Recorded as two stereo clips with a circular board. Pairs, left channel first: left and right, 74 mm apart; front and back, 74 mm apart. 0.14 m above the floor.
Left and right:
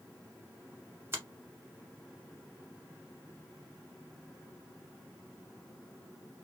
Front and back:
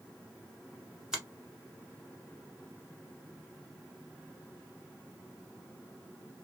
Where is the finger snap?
105° right, 1.1 m.